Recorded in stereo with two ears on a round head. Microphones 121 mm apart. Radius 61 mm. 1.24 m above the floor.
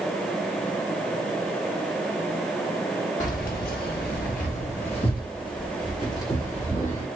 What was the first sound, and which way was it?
Keys jangling, 55° left (ahead or behind).